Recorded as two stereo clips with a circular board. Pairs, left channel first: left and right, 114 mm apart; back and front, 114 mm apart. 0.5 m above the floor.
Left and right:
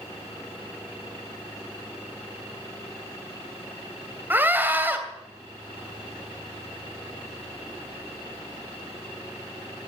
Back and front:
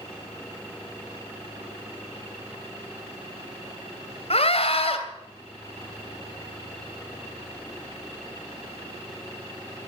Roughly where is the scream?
Behind.